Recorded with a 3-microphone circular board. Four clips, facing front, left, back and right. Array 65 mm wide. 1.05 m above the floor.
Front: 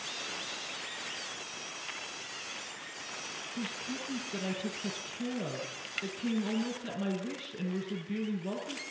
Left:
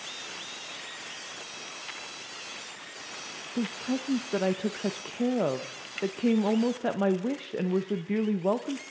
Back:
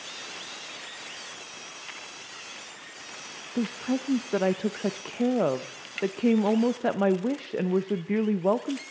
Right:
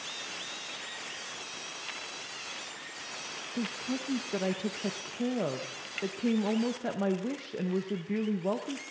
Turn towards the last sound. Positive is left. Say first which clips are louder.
# left 4 dB, back 12 dB
turn(degrees=165)